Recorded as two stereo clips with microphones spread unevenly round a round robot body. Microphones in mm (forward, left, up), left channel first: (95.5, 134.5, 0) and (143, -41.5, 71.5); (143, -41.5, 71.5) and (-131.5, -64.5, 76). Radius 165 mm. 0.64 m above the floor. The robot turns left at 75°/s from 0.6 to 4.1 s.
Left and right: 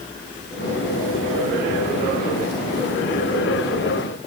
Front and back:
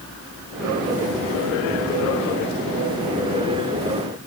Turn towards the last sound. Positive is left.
No sound to turn to.